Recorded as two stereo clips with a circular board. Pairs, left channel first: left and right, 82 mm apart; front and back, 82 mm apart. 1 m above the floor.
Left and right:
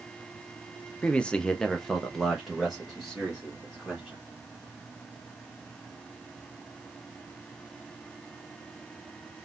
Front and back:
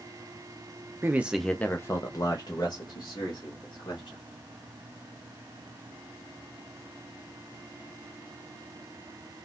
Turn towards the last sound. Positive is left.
turn(degrees=-5)